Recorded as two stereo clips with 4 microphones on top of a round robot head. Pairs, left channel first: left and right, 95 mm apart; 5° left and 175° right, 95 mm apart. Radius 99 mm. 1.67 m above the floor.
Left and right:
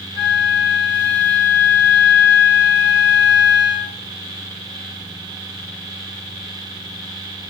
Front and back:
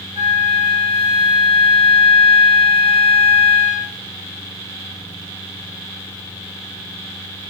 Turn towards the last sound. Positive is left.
turn(degrees=145)